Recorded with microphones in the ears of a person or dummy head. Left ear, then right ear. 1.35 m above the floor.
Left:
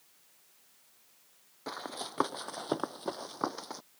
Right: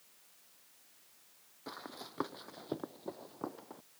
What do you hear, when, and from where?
1.7 s running footsteps: 20° left (ahead or behind); by 3.8 s 65° left (ahead or behind)